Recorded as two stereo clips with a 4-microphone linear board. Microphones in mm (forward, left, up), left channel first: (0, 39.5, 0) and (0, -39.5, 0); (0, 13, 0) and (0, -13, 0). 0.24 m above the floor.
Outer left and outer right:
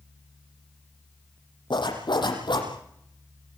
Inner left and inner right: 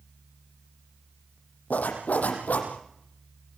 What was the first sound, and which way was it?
A zipper, 70° left (ahead or behind).